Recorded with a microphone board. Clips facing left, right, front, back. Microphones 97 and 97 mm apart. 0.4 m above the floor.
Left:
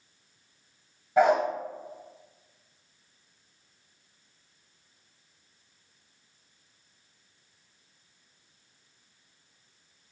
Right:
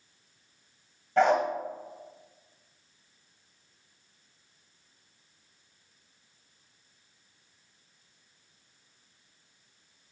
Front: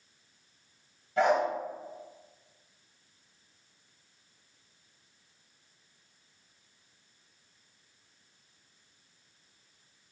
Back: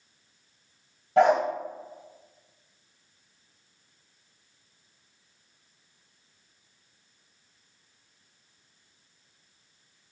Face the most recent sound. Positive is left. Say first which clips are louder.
# left 1 dB, back 5 dB
turn(degrees=170)